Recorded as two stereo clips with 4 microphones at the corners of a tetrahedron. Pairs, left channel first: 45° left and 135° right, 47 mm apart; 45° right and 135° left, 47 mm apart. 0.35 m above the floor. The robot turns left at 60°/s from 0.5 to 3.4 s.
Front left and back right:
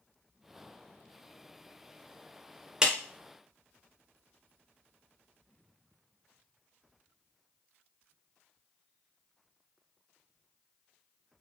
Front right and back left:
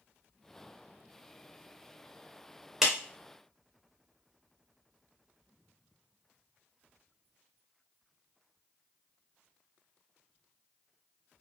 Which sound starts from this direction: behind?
A clap, at 2.8 s.